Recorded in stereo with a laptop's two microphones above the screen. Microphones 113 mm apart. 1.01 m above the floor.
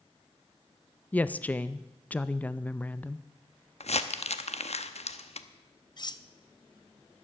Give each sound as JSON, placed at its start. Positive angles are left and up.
{"t": 1.1, "sound": "a woman speaking", "side_deg": 15, "distance_m": 0.5}
{"t": 3.8, "sound": "crumpling", "side_deg": 75, "distance_m": 0.8}
{"t": 6.0, "sound": "cutlery clinking", "side_deg": 40, "distance_m": 0.6}